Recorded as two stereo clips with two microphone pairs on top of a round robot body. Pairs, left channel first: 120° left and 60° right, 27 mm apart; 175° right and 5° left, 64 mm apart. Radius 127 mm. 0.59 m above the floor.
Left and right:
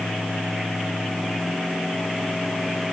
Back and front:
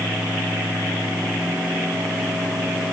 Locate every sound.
Only background noise.